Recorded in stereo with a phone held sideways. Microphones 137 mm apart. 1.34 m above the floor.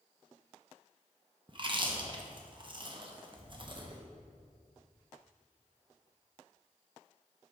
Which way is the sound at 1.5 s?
35° right (ahead or behind).